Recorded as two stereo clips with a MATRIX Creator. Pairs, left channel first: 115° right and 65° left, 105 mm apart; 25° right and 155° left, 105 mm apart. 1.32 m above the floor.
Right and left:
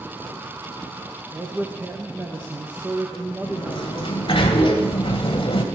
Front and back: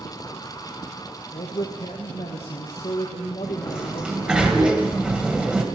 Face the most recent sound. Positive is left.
turn(degrees=-125)